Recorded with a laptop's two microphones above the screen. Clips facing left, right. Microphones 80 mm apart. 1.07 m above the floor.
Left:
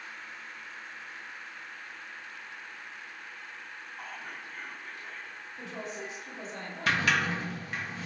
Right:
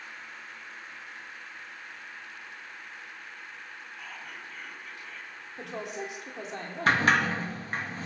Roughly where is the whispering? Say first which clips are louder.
Left 2 dB; left.